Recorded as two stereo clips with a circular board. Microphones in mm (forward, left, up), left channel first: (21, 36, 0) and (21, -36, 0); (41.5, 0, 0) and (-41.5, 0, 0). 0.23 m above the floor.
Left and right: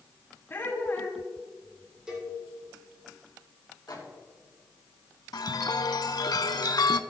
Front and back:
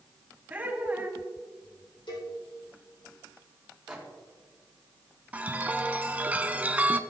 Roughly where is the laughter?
Behind left.